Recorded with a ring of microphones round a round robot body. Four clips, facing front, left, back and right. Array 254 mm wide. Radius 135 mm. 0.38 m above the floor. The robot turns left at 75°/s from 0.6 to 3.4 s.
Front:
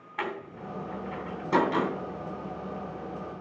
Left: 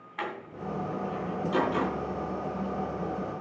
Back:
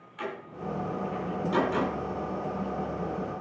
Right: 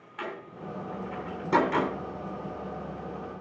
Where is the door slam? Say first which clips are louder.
Left 2 dB, front 2 dB; 25° left, 2.5 m; by 1.9 s 75° right, 2.5 m.